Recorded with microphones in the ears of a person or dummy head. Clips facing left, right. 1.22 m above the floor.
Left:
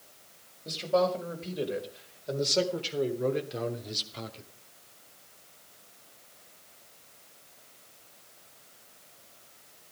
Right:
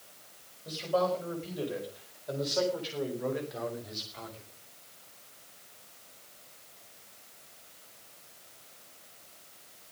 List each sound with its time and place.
0.7 s a man speaking: 30° left (ahead or behind), 5 m; by 4.5 s 45° left (ahead or behind), 2.5 m